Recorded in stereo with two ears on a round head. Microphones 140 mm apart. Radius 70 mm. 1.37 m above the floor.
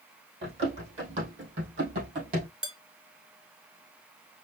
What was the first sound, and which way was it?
Running footsteps, 40° right (ahead or behind).